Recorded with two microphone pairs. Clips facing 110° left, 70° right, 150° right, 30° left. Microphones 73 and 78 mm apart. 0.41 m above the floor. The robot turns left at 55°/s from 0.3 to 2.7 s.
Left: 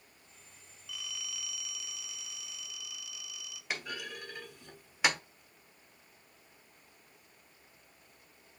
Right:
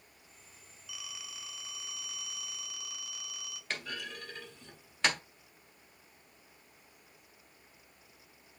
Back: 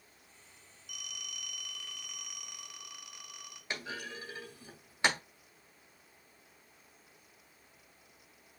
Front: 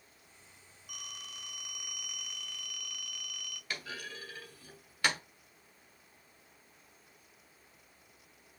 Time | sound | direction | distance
0.9 | a phone ringing | 10° left | 0.7 m
3.7 | a clunk | straight behind | 1.1 m